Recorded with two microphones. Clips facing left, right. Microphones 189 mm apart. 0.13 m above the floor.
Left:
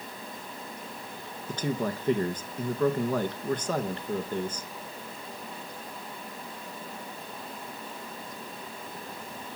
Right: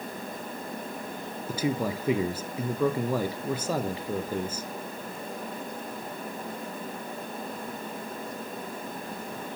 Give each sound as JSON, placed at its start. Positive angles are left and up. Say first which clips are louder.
{"t": 1.5, "sound": "a man speaking", "louder": "right 2 dB", "side_deg": -10, "distance_m": 1.5}